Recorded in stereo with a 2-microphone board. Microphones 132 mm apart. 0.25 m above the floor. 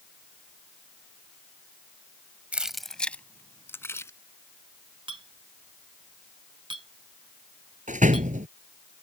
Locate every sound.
2.5 s keys jangling: 10° right (ahead or behind); by 4.1 s 20° left (ahead or behind)
5.1 s a clink: 40° right (ahead or behind)
7.9 s a door slam: 75° right (ahead or behind)